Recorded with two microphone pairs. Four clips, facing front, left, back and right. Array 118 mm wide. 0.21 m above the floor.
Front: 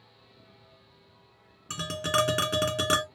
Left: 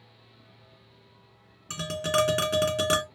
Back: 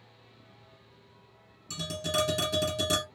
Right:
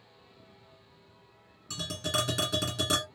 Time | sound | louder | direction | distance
1.7 | tapping | left 7 dB, front 4 dB | 30° left | 2 m